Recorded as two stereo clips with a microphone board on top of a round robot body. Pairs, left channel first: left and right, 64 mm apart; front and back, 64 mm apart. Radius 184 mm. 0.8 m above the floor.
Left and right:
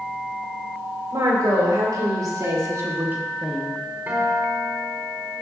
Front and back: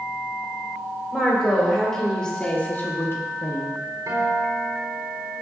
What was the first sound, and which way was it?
A woman speaking, 90° right.